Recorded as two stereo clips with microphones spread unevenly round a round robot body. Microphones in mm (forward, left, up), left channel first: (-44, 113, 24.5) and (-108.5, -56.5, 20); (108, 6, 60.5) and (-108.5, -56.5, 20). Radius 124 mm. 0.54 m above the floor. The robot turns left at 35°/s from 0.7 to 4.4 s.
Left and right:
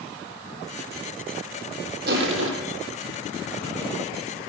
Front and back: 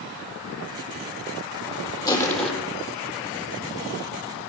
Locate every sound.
2.1 s crushing: 60° right, 4 m; by 2.5 s 75° right, 4 m